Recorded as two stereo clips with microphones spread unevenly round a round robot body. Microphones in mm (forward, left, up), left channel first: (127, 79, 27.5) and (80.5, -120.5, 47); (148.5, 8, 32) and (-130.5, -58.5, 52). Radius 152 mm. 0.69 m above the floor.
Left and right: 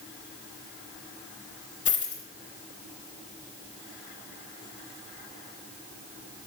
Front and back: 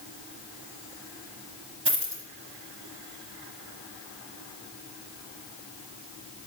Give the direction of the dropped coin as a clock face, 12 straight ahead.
8 o'clock.